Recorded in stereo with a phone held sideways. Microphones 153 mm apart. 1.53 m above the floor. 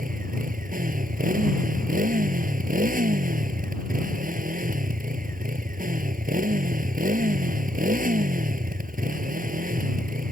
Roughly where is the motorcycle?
Right.